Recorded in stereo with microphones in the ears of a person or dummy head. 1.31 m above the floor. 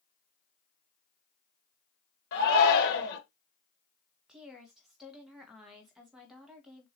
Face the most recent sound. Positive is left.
turn(degrees=-5)  # may be behind; listen again after turning